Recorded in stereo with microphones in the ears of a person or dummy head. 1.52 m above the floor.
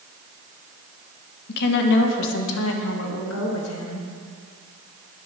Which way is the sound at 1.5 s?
50° left (ahead or behind).